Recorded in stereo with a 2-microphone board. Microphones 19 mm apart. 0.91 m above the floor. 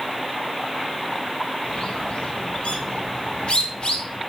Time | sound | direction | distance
1.6 | a bird | 85° left | 2.5 m